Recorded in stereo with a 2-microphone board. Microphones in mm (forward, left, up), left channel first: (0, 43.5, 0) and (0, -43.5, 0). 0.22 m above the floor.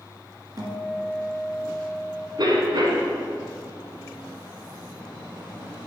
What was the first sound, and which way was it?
A guitar, 45° right (ahead or behind).